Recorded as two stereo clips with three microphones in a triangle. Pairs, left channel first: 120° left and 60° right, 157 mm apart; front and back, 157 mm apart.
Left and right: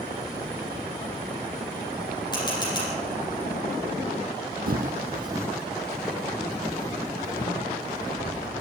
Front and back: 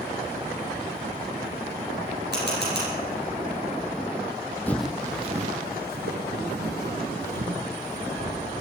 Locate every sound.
2.3 s a camera shutter: 175° right, 6 m
4.7 s footsteps: 80° right, 0.9 m; by 8.4 s straight behind, 4 m